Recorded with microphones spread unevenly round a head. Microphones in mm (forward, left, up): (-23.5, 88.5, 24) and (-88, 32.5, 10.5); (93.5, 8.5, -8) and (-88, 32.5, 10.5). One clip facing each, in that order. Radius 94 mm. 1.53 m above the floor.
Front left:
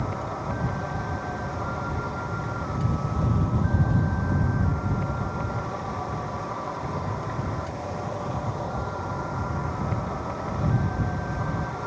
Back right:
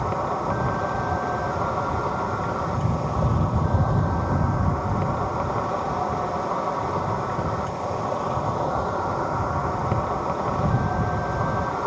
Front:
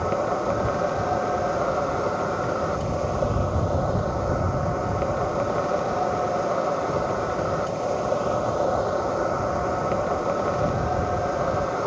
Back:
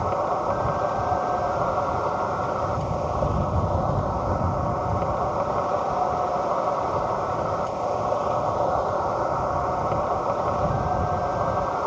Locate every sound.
0.0 s an insect: 75° right